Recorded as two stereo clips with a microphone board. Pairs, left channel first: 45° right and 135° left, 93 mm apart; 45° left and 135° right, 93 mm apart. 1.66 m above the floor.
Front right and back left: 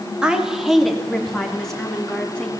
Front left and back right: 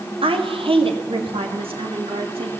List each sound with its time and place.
0.2 s a woman speaking: 145° right, 3 m; by 2.5 s 125° right, 4 m